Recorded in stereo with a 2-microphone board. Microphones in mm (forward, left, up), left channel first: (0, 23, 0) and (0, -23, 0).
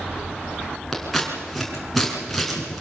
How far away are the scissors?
About 5.5 m.